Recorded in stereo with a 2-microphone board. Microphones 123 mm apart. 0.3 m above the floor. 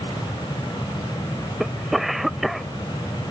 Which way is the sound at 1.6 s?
Centre (ahead or behind).